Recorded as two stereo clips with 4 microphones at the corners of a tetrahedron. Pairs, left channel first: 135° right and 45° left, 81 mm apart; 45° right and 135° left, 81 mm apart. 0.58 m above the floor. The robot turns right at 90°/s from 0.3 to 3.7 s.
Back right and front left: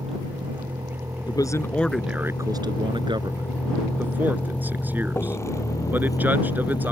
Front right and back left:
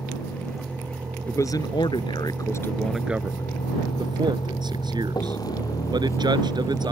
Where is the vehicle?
25° left; by 6.9 s 110° right.